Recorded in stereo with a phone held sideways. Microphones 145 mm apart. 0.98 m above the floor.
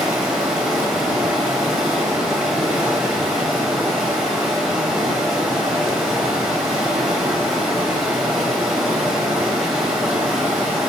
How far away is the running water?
About 0.7 m.